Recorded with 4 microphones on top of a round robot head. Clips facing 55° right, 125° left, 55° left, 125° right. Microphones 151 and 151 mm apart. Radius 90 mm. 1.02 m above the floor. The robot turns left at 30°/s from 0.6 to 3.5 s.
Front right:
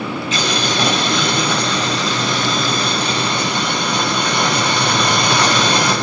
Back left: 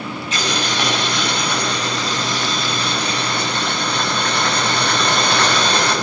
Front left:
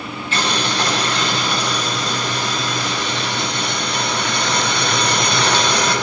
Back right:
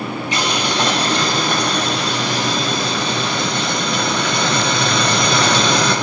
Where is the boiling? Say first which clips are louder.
Front right 2 dB, even; 45° right, 8 m; by 5.9 s 135° right, 8 m.